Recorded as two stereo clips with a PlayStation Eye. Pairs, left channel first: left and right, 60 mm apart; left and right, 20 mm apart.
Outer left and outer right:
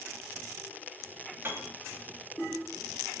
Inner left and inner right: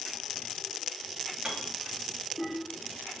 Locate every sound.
1.4 s a piano: 40° right (ahead or behind), 4 m